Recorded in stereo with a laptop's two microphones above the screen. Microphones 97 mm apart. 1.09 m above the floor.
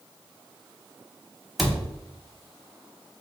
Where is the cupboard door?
Centre (ahead or behind), 0.7 m.